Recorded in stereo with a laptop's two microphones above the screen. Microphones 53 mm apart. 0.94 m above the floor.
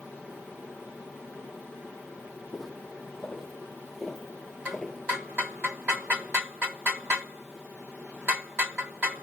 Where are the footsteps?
5° left (ahead or behind), 2.5 m; by 5.0 s 10° left (ahead or behind), 1.0 m.